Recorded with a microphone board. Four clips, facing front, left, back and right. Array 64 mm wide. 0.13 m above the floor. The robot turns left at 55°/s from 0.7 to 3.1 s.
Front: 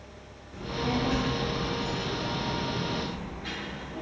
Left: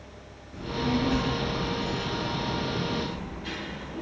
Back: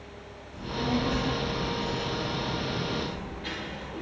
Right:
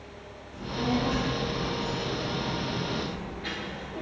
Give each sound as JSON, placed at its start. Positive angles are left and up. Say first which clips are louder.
{"t": 0.5, "sound": "a child speaking", "louder": "left 1 dB, back 1 dB", "azimuth_deg": 30, "distance_m": 1.1}